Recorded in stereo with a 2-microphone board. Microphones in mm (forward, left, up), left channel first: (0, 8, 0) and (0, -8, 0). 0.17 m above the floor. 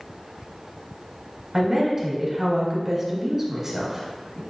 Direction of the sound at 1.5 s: 30° right (ahead or behind).